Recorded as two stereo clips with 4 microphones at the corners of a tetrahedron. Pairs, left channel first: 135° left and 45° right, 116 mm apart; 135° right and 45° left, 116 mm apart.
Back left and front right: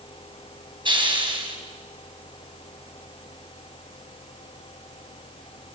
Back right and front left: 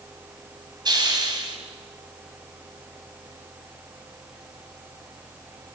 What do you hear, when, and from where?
0.8 s a hiss: 5° right, 4 m